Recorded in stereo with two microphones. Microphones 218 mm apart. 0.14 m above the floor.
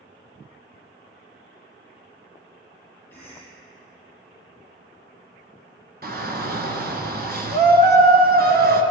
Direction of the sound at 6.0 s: 45° right (ahead or behind).